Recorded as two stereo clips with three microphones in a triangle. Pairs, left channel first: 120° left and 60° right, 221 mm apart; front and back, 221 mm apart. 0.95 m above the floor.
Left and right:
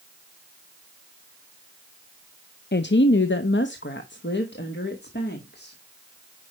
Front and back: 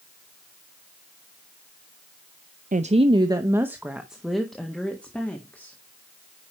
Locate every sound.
2.7 s a woman speaking: 135° left, 0.5 m; by 5.8 s 80° left, 1.8 m